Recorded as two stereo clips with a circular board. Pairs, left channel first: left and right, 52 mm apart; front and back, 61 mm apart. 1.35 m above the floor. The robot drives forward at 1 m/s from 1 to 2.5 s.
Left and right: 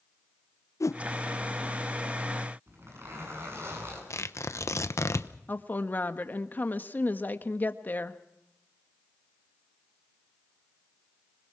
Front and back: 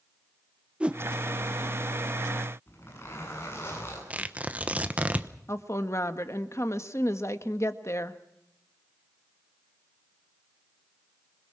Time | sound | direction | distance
0.8 | a whoosh | 105° left | 0.6 m
2.7 | a zipper | 50° right | 8.5 m
4.1 | tearing paper | 115° left | 1.0 m
5.5 | a woman speaking | 35° left | 1.5 m